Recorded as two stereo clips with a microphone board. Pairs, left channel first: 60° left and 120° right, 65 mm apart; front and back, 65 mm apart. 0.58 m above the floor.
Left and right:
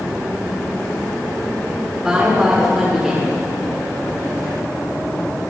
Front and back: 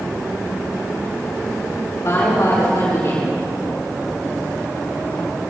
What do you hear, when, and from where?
2.0 s a woman speaking: 45° right, 7.5 m